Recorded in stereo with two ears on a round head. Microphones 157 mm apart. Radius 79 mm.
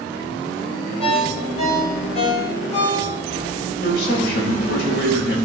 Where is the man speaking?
70° left (ahead or behind), 4.5 m.